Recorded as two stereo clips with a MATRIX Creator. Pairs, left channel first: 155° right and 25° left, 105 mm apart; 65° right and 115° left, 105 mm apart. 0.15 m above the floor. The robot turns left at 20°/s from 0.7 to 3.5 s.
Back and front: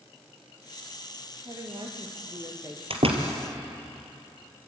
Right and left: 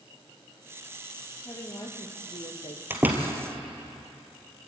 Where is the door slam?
45° left, 3 m; by 3.3 s 35° left, 3 m.